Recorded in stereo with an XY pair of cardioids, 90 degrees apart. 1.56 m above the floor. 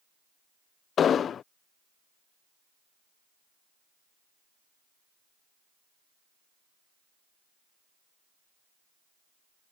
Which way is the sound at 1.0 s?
60° left.